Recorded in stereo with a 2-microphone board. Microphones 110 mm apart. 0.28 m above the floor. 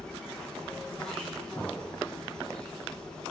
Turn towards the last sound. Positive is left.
turn(degrees=10)  # may be behind; listen again after turning